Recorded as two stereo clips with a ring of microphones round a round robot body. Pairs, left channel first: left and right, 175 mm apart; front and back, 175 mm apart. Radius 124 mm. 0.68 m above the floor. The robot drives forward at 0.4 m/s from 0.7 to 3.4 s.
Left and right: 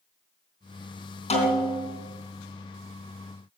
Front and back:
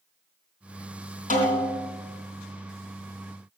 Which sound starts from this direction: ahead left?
A snare drum, at 1.3 s.